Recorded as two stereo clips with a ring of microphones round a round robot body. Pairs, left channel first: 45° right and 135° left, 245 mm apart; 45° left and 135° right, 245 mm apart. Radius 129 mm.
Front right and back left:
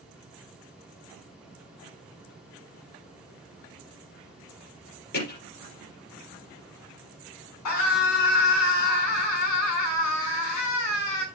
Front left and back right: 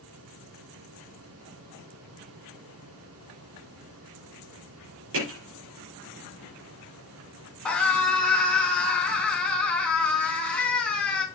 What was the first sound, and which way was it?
Hammering, 95° right.